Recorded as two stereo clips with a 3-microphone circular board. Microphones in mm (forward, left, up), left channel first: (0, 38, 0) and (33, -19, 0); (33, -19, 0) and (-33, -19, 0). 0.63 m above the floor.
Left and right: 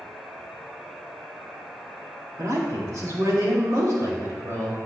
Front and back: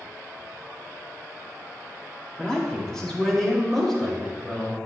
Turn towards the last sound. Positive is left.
turn(degrees=-90)